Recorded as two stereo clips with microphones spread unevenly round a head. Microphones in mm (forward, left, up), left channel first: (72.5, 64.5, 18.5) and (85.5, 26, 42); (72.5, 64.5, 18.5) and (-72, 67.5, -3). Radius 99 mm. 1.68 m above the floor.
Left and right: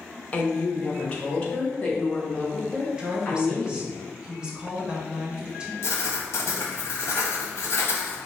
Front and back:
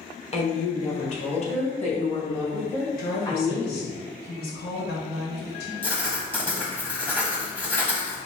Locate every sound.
0.3 s a woman speaking: 45° left, 1.3 m; by 3.9 s 40° left, 3.5 m
2.9 s a woman speaking: 10° right, 1.6 m
5.8 s writing: 65° left, 1.3 m